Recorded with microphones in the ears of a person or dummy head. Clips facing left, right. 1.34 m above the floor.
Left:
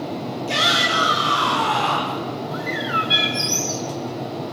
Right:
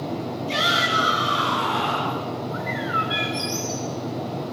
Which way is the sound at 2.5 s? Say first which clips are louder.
Left 2 dB; 40° left (ahead or behind).